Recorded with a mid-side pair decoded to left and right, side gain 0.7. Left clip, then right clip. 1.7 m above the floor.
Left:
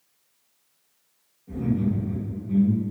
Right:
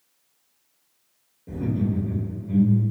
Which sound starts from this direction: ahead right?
Laughter, at 1.5 s.